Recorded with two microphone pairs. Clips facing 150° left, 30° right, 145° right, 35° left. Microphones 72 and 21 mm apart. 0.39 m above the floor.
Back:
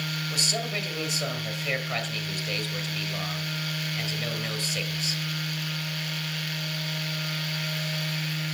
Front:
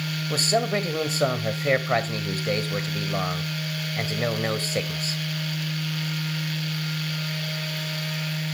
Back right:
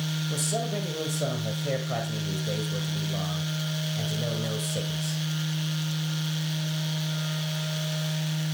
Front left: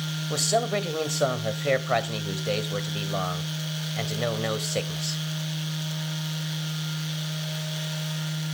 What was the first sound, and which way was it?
A man speaking, 10° left.